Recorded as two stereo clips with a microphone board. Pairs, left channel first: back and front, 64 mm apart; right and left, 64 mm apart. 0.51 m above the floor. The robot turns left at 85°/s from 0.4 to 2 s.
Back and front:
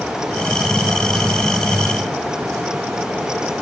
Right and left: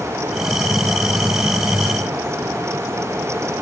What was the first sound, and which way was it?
Only background noise.